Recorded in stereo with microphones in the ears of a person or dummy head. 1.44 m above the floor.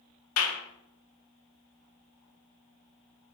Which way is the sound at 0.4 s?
75° left (ahead or behind).